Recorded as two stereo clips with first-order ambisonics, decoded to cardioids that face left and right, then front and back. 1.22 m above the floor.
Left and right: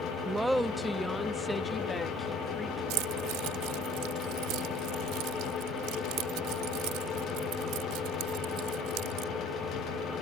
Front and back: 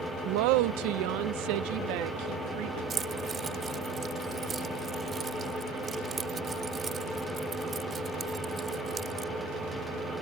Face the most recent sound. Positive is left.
turn(degrees=-110)